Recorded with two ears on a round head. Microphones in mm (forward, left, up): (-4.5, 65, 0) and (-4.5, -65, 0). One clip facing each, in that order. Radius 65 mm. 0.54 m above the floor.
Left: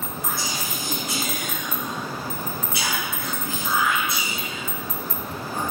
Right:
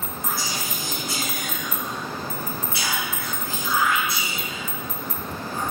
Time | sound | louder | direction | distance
0.2 | whispering | right 1 dB | 20° left (ahead or behind) | 6 m